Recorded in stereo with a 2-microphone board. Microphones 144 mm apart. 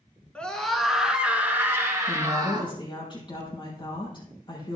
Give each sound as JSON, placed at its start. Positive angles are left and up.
{"t": 0.3, "sound": "a scream", "side_deg": 10, "distance_m": 2.5}
{"t": 2.1, "sound": "a woman speaking", "side_deg": 35, "distance_m": 4.5}